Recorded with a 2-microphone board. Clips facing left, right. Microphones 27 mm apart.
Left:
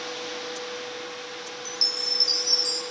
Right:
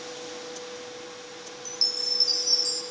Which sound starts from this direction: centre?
A chime, at 1.6 s.